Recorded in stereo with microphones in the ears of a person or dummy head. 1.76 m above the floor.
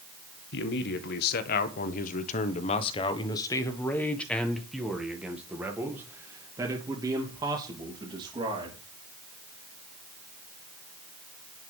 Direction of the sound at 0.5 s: 75° left (ahead or behind).